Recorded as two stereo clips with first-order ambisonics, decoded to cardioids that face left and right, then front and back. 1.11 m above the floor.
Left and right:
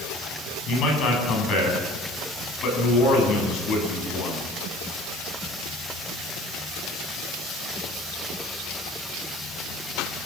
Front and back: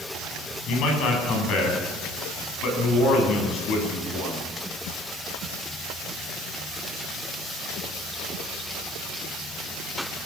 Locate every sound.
0.7 s a man speaking: 45° left, 8 m